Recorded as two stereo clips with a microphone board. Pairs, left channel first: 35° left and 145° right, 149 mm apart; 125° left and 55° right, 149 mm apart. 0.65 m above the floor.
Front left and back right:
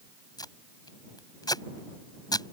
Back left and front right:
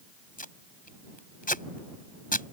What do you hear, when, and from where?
0.4 s tape being pulled: 100° left